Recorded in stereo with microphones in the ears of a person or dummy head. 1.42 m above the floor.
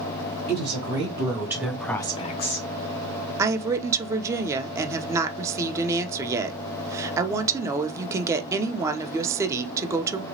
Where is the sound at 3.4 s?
20° right (ahead or behind), 0.6 m.